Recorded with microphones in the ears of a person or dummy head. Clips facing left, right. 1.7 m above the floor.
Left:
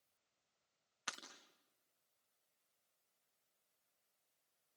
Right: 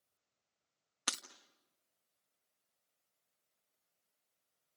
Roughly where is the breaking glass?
Right.